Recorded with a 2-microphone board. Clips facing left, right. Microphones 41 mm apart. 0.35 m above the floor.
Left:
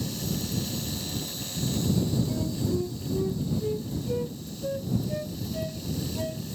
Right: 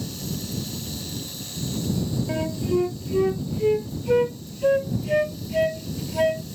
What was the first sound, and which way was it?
A flute, 65° right (ahead or behind).